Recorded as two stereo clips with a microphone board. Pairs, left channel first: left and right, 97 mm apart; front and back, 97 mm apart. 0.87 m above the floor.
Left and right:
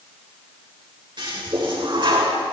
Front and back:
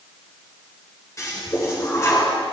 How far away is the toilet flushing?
About 4.5 m.